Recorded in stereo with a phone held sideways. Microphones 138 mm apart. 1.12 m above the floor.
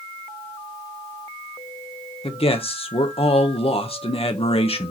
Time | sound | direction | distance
2.2 | a man speaking | 45° left (ahead or behind) | 1.0 m